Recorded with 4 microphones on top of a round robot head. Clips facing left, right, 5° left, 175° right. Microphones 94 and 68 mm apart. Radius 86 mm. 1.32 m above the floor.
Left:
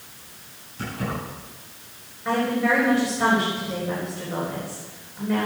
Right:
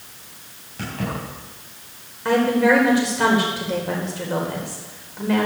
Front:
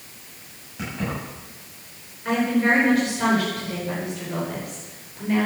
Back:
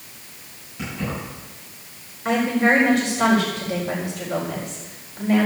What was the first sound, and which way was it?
Keys jangling, 60° right.